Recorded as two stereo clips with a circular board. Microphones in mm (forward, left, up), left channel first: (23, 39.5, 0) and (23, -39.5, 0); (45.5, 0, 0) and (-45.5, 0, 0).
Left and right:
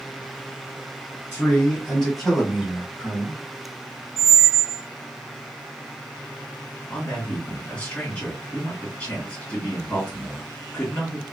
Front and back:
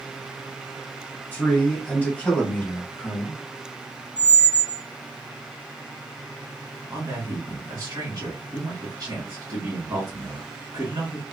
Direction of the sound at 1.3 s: 45° left.